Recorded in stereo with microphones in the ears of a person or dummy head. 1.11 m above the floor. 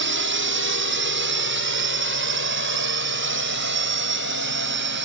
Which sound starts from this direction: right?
A drone, at 0.0 s.